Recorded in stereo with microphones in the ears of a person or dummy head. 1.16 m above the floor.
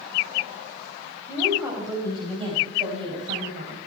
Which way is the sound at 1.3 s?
10° right (ahead or behind).